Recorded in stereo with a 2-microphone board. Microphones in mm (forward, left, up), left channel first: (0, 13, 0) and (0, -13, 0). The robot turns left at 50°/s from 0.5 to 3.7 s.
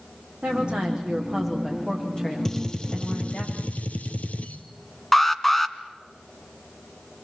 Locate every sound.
0.4 s a woman speaking: 130° right, 8 m; by 3.5 s 85° left, 8 m
2.5 s a gunshot: 165° left, 1.6 m; by 4.6 s 105° left, 1.6 m
5.1 s an alarm: 10° left (ahead or behind), 1.2 m